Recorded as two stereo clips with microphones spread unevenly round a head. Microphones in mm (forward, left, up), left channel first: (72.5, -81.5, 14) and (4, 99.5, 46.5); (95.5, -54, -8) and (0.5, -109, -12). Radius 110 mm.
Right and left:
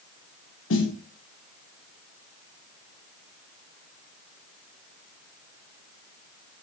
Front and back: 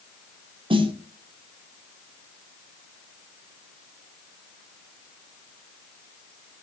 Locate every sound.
0.7 s a snare drum: 105° right, 0.7 m